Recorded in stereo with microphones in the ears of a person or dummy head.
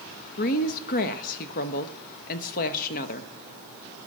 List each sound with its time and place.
0.4 s a woman speaking: 45° left (ahead or behind), 0.9 m